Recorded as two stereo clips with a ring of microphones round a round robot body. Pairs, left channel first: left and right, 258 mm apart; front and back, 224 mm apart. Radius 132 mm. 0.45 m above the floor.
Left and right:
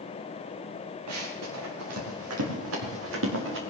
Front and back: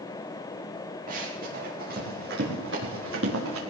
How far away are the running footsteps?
About 5 m.